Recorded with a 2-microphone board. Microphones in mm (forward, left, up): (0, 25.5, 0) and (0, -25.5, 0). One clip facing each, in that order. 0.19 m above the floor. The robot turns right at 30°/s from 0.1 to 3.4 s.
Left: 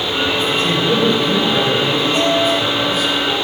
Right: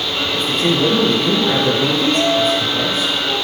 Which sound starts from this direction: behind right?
A man speaking, at 0.3 s.